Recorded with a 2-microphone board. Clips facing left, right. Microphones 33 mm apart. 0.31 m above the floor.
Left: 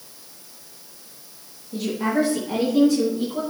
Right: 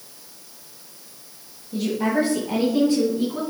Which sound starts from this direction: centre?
A woman speaking, at 1.7 s.